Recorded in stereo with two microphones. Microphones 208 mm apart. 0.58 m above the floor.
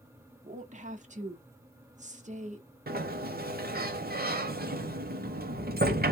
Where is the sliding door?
45° right (ahead or behind), 0.7 m.